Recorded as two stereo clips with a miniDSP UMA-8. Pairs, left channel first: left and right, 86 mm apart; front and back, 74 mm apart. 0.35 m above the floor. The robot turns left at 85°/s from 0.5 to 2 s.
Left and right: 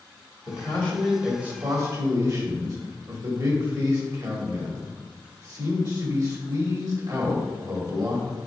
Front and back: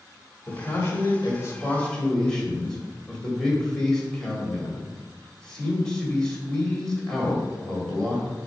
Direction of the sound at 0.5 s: 50° left.